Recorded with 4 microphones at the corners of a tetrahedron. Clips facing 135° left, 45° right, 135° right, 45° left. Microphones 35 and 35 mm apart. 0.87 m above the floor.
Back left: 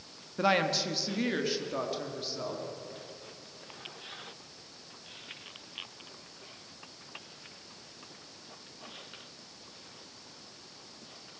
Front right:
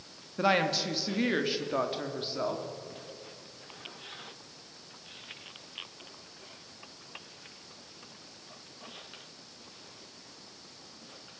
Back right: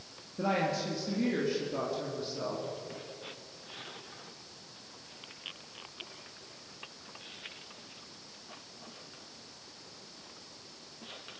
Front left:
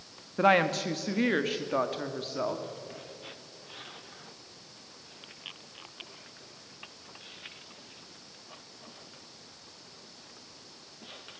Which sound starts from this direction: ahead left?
A woman speaking, at 0.4 s.